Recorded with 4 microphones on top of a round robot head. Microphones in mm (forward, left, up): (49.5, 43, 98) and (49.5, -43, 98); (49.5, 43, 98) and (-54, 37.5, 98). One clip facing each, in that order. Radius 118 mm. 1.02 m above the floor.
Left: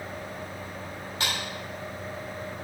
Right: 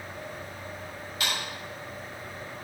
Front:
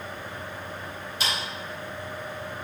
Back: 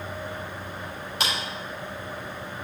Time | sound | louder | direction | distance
1.2 | a clap | left 1 dB, back 2 dB | 155° left | 4 m